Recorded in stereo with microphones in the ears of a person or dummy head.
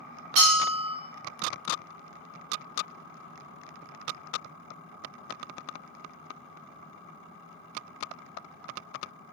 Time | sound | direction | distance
0.4 | a bell | 35° right (ahead or behind) | 2.0 m